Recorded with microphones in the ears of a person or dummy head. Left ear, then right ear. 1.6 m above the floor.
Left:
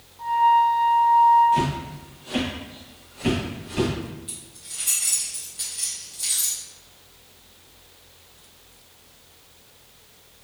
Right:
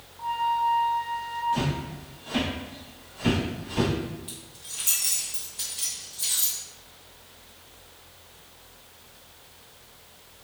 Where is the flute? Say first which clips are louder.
Left 8 dB; 15° left (ahead or behind), 1.6 m.